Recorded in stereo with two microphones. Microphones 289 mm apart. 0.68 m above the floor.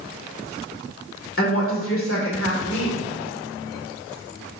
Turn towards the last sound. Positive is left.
turn(degrees=50)  # may be behind; listen again after turning